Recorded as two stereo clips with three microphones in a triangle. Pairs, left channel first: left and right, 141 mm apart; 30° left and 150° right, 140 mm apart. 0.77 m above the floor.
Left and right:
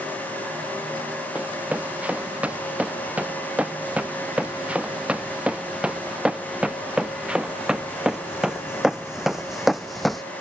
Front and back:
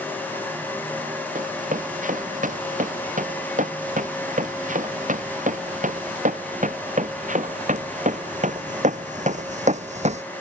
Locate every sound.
1.4 s running footsteps: 170° right; by 10.2 s straight behind